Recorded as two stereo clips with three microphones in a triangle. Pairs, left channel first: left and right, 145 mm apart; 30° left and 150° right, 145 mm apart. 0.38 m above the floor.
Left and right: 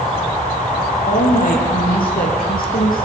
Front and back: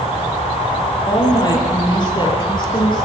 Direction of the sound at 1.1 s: 90° left.